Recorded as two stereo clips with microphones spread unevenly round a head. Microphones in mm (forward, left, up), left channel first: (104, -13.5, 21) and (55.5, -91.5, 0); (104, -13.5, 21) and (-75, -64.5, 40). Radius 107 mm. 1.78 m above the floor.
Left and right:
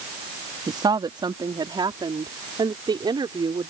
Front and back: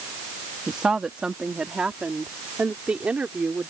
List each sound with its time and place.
0.7 s a woman speaking: 80° right